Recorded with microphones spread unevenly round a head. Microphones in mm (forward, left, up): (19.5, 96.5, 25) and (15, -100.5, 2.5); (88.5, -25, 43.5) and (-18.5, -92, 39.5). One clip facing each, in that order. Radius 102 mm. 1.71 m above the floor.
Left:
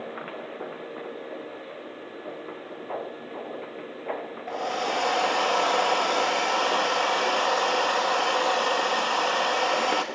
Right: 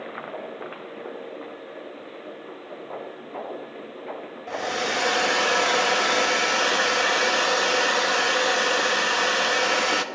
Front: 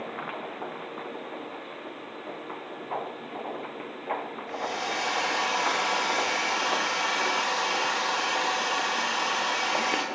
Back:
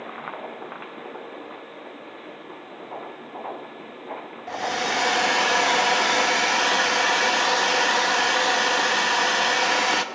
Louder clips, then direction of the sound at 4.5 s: Right 1 dB, back 6 dB; 160° right.